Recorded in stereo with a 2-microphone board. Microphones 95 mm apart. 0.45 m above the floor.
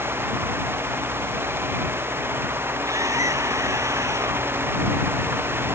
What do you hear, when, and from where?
2.9 s a scream: 35° right (ahead or behind)